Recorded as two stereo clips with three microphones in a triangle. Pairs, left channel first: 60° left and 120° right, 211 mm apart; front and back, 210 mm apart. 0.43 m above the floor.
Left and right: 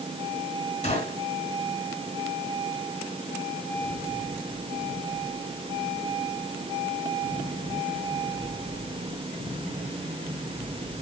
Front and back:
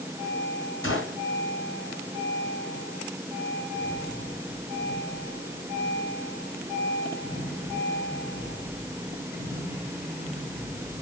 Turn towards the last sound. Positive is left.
turn(degrees=5)